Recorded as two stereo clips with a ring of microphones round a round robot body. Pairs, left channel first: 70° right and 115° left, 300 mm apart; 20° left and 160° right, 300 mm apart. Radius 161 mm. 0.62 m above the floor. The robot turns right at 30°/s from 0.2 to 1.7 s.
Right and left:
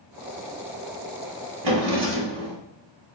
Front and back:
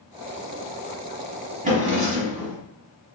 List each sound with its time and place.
1.6 s a drawer: 135° left, 1.1 m